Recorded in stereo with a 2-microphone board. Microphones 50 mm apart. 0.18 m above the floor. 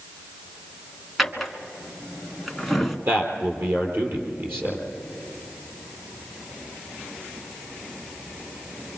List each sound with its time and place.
1.2 s a drawer: centre (ahead or behind), 1.3 m
3.1 s a man speaking: 55° right (ahead or behind), 4 m